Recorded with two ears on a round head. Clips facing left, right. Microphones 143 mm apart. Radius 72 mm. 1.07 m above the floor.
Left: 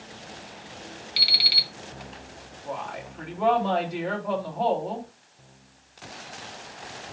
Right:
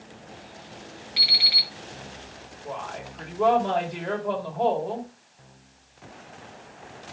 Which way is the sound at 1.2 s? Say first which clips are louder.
Even; 40° left (ahead or behind).